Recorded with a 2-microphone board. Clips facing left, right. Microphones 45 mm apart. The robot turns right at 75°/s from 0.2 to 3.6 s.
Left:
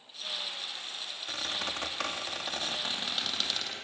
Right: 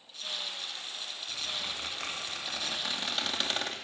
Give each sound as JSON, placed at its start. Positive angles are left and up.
{"t": 1.3, "sound": "a squeak", "azimuth_deg": 40, "distance_m": 2.0}